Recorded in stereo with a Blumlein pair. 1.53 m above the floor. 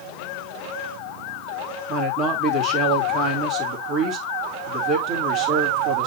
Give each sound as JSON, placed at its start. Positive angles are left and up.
{"t": 1.9, "sound": "a man speaking", "azimuth_deg": -35, "distance_m": 2.5}